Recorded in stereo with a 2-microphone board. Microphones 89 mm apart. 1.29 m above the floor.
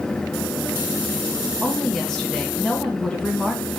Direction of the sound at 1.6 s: 5° left (ahead or behind).